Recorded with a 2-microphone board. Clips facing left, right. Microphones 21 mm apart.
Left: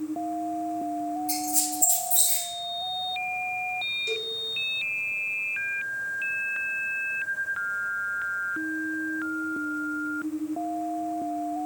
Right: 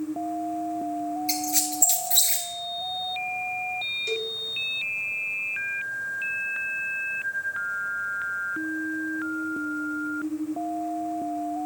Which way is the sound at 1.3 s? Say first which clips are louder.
Right 2 dB; 60° right (ahead or behind).